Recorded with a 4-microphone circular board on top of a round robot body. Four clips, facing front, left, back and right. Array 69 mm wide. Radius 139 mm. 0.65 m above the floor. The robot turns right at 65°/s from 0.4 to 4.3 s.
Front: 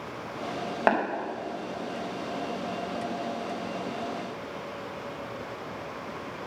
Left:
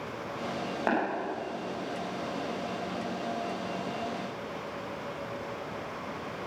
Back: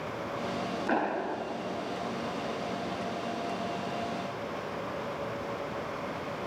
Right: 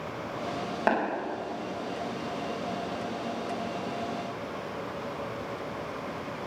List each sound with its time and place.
0.9 s tapping: 10° right, 4.5 m; by 1.0 s straight ahead, 4.5 m